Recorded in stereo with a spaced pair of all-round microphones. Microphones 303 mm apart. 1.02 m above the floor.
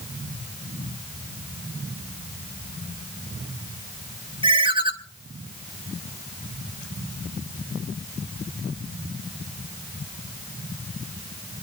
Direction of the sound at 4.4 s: 15° right (ahead or behind).